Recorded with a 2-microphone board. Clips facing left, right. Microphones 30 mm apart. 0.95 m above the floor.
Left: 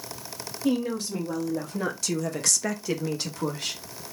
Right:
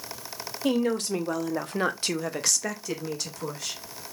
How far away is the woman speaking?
About 1.1 m.